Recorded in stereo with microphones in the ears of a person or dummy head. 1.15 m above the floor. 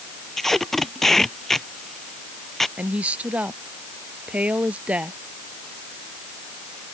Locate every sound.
0.4 s tape being pulled: centre (ahead or behind)
2.8 s a woman speaking: 5° right (ahead or behind)